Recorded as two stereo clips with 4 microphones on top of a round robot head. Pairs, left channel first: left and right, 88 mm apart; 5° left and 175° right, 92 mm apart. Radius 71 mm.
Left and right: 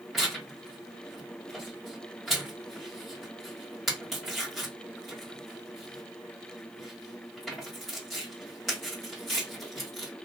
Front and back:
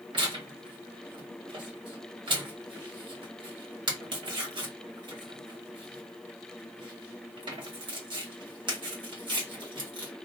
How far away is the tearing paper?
About 1.2 m.